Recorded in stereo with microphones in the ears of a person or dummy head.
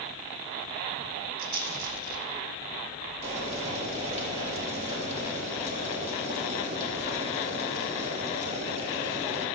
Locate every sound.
1.4 s a rattle: 55° right (ahead or behind), 0.8 m
3.2 s boiling: 40° right (ahead or behind), 2 m